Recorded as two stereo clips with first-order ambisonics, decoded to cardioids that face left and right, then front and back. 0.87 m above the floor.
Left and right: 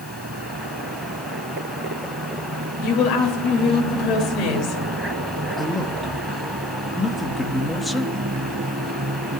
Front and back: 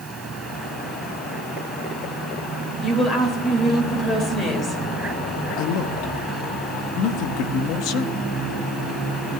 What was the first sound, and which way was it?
A woman speaking, 60° left.